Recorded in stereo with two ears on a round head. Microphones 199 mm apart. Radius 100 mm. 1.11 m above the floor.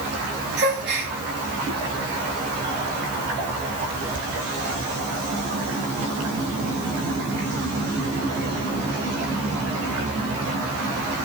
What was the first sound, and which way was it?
A gasp, 50° right (ahead or behind).